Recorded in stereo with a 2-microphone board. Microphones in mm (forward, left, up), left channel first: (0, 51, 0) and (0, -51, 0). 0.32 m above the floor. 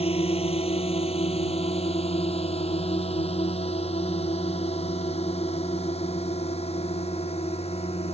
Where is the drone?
75° left (ahead or behind); by 8.1 s 85° left.